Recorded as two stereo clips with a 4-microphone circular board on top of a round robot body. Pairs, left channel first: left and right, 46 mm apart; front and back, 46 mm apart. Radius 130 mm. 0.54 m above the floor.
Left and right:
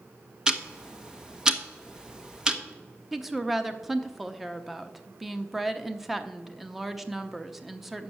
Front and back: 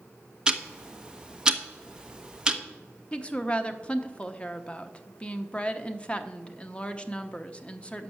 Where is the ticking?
140° right, 1.1 m.